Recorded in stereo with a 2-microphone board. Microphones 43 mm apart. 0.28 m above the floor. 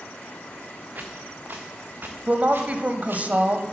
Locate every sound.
0.9 s footsteps: 40° right (ahead or behind), 2.5 m; by 3.3 s 55° right (ahead or behind), 4 m
2.3 s a woman speaking: 40° right (ahead or behind), 1.2 m